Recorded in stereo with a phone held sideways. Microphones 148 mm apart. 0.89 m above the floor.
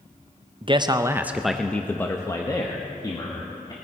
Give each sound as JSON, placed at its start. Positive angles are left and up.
{"t": 0.6, "sound": "a man speaking", "side_deg": -35, "distance_m": 0.5}